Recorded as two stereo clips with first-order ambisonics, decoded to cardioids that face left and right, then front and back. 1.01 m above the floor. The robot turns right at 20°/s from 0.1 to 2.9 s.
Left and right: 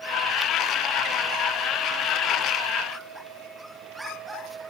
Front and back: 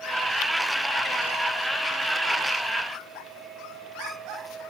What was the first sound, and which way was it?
Only background noise.